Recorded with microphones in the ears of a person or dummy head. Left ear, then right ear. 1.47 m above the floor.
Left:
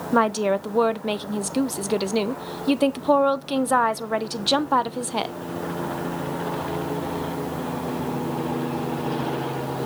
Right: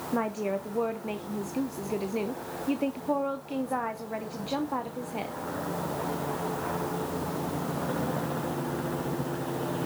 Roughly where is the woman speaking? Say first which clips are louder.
Left 10 dB; left.